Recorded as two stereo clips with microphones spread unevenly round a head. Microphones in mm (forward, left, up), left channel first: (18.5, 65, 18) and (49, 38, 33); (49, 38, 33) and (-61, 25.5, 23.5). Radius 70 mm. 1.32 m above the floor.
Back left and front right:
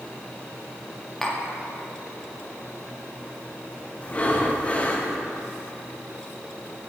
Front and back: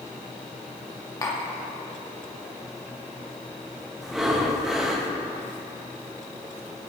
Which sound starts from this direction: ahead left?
Tapping, at 1.2 s.